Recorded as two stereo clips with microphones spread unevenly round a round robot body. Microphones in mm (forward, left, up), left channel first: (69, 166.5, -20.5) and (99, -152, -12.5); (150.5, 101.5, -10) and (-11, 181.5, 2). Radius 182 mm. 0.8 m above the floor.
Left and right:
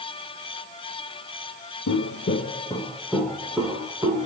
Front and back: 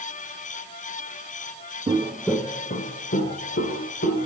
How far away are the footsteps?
About 0.9 m.